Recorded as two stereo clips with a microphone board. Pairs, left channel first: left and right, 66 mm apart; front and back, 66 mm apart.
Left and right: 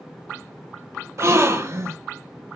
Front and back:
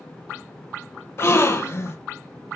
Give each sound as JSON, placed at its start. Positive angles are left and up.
{"t": 1.2, "sound": "a gasp", "azimuth_deg": -45, "distance_m": 1.2}